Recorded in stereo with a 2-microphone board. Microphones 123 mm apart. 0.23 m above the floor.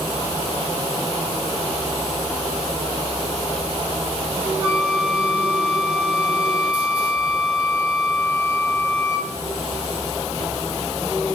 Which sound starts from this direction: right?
A flute, at 4.6 s.